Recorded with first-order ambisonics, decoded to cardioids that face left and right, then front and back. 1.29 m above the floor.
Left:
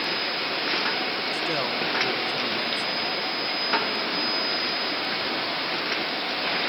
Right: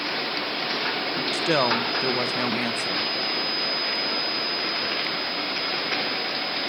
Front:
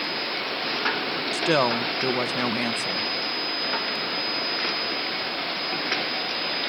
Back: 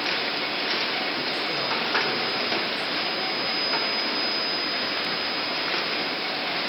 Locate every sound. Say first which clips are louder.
1.3 s a woman speaking: right 4 dB, front 4 dB; 30° right, 1.0 m